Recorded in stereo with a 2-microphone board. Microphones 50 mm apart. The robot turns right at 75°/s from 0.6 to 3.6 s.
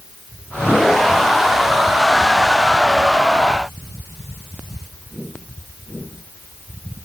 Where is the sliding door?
I don't hear a sliding door.